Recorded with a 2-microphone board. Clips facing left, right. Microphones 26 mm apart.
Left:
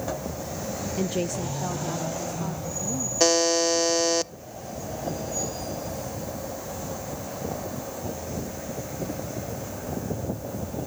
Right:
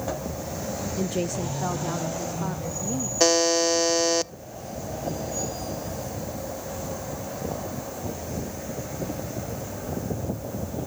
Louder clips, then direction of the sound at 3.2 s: Right 1 dB; 5° right (ahead or behind).